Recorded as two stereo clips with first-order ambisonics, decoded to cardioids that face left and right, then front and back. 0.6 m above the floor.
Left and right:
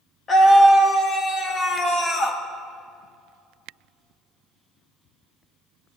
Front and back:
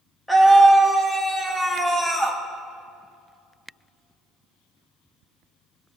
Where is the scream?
85° left, 0.9 m.